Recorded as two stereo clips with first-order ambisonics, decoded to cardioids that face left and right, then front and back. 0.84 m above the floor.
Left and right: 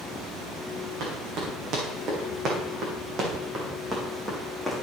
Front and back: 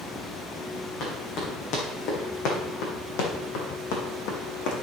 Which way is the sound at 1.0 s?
45° right.